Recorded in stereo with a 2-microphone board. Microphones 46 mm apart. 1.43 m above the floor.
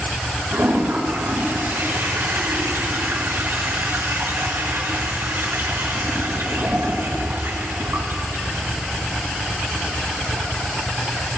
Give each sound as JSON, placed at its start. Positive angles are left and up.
{"t": 0.5, "sound": "a toilet flushing", "side_deg": -75, "distance_m": 4.5}